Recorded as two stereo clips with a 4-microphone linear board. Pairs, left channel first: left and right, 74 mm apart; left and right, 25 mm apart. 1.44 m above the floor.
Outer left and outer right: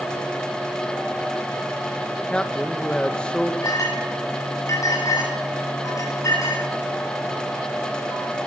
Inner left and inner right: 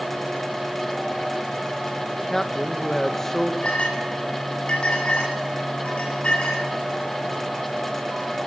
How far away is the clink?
About 9.5 m.